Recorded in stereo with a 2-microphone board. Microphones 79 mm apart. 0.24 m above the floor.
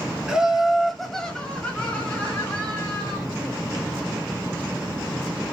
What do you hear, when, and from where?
0.3 s laughter: 10° right (ahead or behind), 1.1 m; by 3.2 s 25° left (ahead or behind), 1.8 m